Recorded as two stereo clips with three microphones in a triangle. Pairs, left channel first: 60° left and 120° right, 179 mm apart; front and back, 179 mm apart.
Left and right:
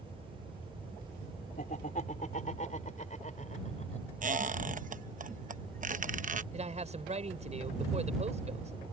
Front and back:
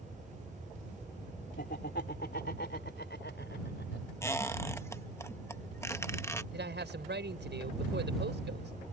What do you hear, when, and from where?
1.6 s laughter: 20° left; by 4.1 s 10° left
4.2 s a squeak: 75° right
6.5 s a man speaking: 170° right